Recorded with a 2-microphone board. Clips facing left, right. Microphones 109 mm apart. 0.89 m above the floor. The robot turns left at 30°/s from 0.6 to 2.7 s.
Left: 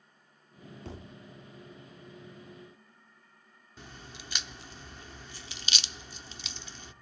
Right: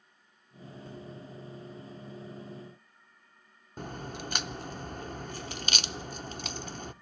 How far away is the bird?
I don't hear a bird.